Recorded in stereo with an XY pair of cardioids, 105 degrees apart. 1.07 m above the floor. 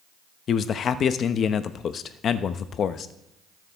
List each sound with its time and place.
0.5 s a man speaking: 55° left, 0.8 m